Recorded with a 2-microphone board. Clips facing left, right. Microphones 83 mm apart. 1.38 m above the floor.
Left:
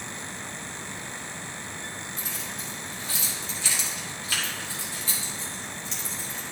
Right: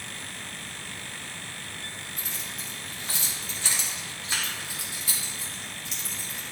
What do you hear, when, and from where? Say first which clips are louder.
2.2 s keys jangling: left 2 dB; 75° right (ahead or behind), 2.5 m; by 6.4 s centre (ahead or behind), 5 m